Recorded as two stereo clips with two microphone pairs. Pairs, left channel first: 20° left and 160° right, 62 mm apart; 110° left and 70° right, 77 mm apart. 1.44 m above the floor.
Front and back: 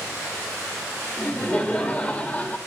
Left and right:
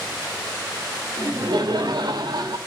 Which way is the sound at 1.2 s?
50° right.